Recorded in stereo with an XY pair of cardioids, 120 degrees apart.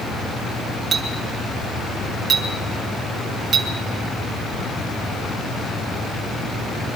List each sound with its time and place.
0.9 s a clink: 45° right, 2.5 m